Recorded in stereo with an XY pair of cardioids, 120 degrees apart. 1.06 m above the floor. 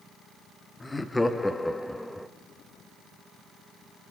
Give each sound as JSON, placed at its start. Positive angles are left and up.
{"t": 0.8, "sound": "laughter", "azimuth_deg": 10, "distance_m": 1.7}